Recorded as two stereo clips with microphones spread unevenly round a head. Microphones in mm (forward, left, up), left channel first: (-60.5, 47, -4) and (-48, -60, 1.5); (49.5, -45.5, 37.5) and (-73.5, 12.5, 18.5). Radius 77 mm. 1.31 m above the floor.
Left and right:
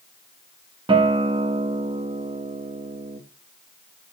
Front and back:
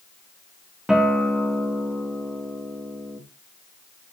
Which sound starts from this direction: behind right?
A guitar, at 0.9 s.